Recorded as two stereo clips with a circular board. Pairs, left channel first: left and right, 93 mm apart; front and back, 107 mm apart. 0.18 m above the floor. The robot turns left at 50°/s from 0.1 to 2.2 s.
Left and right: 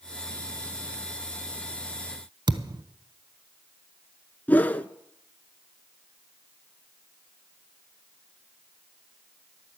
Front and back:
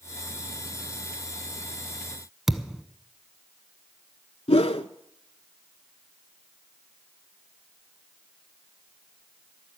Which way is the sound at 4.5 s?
15° left.